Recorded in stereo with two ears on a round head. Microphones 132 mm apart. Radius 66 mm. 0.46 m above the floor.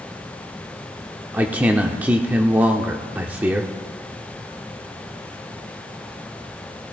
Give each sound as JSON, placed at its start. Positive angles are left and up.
{"t": 1.3, "sound": "a man speaking", "side_deg": -10, "distance_m": 0.7}